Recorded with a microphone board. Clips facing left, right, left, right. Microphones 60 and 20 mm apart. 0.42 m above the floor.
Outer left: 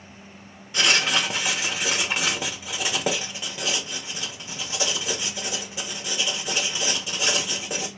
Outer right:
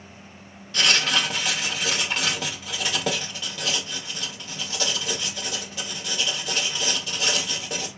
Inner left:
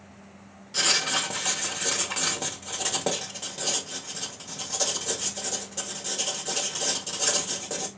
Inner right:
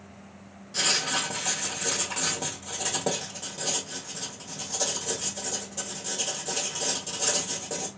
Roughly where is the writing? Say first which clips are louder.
Even, inner left 2 dB; centre.